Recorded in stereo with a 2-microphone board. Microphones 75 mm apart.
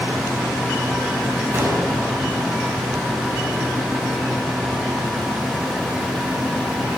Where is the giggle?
No giggle in this recording.